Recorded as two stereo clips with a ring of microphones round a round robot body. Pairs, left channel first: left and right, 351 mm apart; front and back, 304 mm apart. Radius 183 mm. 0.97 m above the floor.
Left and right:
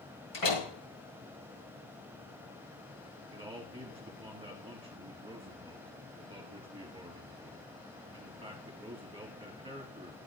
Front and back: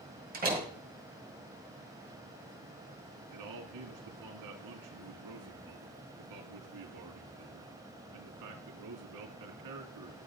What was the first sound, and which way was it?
A door slam, 120° left.